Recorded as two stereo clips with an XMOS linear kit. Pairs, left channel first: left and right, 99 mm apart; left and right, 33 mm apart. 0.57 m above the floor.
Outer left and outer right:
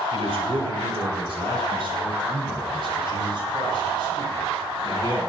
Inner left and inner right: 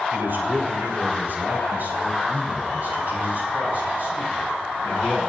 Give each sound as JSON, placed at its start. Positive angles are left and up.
{"t": 0.1, "sound": "a man speaking", "side_deg": -60, "distance_m": 2.5}